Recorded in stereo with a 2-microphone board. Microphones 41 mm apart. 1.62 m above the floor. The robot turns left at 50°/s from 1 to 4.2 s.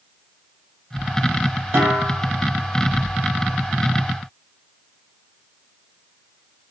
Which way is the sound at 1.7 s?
80° right.